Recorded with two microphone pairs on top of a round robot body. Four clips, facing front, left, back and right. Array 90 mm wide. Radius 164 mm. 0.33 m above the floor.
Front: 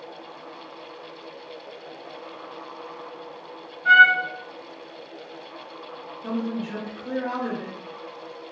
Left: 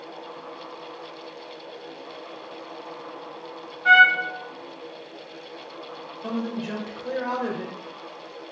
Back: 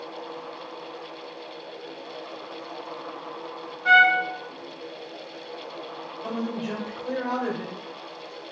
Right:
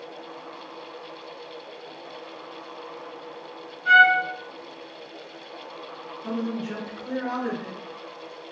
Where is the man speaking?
115° left, 2 m.